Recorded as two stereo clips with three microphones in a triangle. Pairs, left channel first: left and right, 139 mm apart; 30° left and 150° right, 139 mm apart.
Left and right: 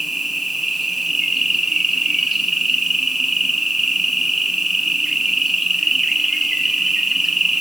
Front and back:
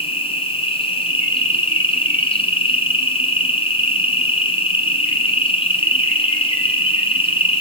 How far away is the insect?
About 3 m.